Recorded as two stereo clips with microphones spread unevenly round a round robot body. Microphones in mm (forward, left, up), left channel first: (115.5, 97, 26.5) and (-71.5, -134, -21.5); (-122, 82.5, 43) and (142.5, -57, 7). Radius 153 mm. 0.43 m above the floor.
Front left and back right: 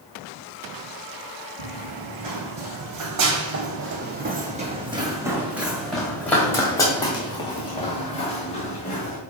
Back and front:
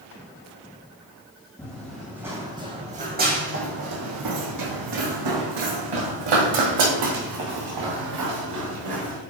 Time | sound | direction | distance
1.6 | running footsteps | 125° right | 1.7 m